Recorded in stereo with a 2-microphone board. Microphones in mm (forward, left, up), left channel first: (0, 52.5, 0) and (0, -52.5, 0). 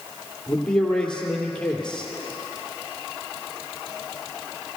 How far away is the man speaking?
About 2.5 m.